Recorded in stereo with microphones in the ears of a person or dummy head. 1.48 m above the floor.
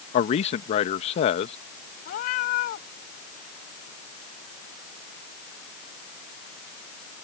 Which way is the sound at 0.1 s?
35° left (ahead or behind).